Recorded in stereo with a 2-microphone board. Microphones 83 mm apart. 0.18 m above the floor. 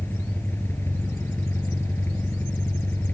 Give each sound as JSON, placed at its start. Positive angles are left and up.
{"t": 0.0, "sound": "an engine running", "side_deg": 25, "distance_m": 3.0}